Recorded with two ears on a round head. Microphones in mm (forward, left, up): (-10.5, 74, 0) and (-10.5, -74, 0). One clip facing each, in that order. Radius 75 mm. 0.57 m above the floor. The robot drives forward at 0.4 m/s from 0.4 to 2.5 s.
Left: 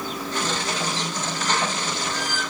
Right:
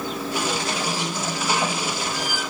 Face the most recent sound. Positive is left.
No sound to turn to.